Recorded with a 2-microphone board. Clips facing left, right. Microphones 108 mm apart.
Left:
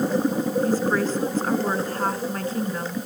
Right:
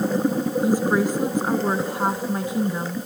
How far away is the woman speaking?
About 1.1 m.